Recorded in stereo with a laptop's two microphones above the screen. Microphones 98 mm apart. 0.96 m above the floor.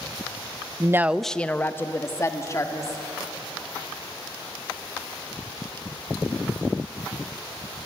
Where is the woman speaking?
35° right (ahead or behind), 0.6 m; by 3.0 s 35° left (ahead or behind), 3 m.